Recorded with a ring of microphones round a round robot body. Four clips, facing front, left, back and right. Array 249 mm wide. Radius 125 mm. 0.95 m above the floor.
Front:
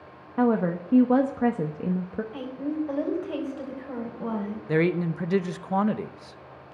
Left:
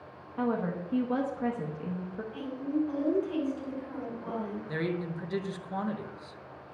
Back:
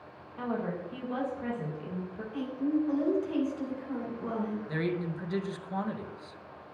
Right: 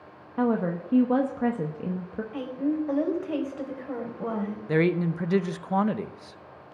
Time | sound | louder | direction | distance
0.4 | a woman speaking | right 5 dB, front 10 dB | 25° right | 1.0 m
2.3 | a woman speaking | right 4 dB, back 3 dB | 60° right | 4 m
4.7 | a man speaking | right 11 dB, front 13 dB | 45° right | 0.8 m